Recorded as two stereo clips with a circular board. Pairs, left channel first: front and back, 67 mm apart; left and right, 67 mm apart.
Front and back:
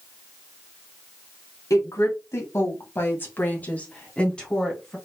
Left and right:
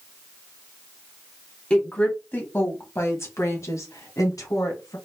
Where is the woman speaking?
20° left, 1.9 m; by 5.0 s 80° left, 2.5 m.